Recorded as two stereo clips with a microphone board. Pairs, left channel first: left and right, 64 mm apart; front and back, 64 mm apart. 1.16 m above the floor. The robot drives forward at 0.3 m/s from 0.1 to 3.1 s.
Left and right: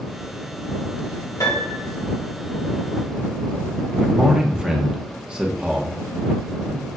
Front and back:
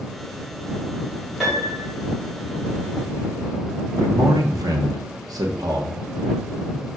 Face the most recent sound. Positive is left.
turn(degrees=-165)